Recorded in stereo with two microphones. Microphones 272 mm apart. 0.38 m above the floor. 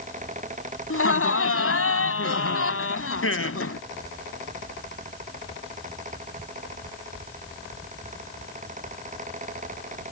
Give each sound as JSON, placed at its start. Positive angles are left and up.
{"t": 0.9, "sound": "laughter", "side_deg": 60}